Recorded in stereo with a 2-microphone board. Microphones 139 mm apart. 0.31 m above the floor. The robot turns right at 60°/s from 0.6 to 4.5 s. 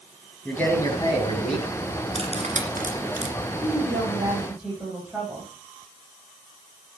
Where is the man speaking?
15° left, 2.5 m; by 1.7 s 80° left, 2.5 m.